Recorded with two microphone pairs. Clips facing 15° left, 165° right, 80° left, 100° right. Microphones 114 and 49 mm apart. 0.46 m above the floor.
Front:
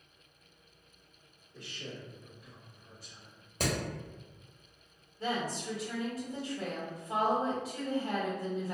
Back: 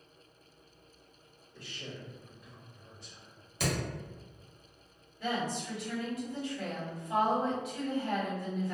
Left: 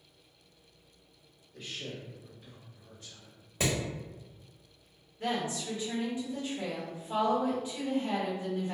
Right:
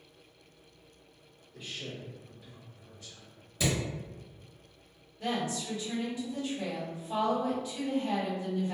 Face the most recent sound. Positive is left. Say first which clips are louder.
# even, even
turn(degrees=35)